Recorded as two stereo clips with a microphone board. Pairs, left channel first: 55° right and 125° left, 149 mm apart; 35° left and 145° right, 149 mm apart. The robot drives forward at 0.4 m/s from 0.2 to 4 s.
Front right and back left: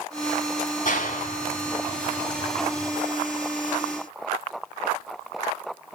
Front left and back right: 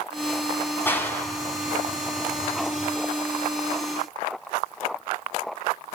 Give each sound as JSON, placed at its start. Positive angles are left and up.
{"t": 0.8, "sound": "a clap", "azimuth_deg": -40, "distance_m": 3.0}